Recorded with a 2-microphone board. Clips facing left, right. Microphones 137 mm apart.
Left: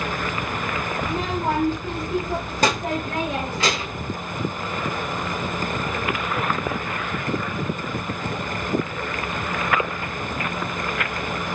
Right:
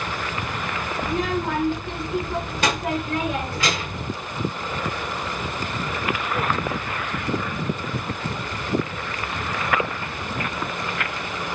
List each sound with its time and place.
1.0 s a child speaking: 35° left (ahead or behind), 1.1 m; by 4.1 s 25° left (ahead or behind), 1.7 m